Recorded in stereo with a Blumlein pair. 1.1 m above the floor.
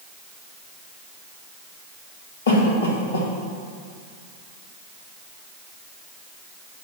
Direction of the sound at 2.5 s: 65° left.